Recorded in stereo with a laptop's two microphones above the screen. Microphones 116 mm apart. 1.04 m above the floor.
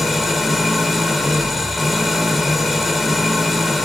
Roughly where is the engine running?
Centre.